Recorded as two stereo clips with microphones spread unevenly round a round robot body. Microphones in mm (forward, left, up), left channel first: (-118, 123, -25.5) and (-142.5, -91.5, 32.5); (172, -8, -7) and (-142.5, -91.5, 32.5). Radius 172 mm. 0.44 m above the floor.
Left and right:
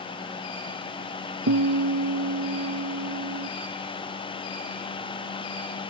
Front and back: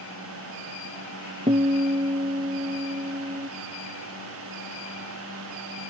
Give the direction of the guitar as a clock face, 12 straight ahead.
3 o'clock.